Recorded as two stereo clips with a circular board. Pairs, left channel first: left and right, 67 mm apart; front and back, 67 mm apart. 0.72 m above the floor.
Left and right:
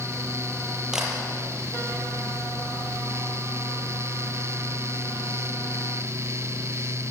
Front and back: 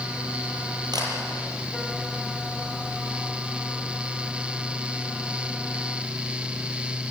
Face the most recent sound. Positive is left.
turn(degrees=-170)